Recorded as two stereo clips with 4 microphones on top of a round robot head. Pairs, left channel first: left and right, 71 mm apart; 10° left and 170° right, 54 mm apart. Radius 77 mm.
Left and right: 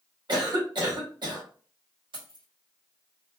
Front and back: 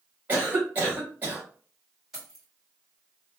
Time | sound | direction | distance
0.3 | a cough | 105° right | 2 m
2.1 | keys jangling | 85° right | 2.5 m